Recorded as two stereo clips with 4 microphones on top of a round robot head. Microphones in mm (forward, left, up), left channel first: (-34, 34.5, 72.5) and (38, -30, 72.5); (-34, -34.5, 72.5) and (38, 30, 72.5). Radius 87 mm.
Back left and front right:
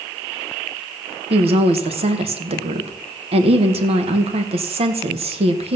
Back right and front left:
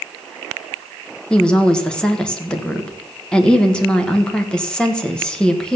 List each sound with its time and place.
1.3 s a woman speaking: 60° right, 1.7 m